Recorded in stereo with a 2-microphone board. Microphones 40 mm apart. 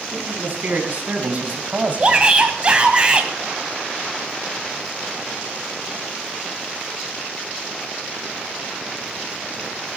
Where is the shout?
30° right (ahead or behind), 2.0 m.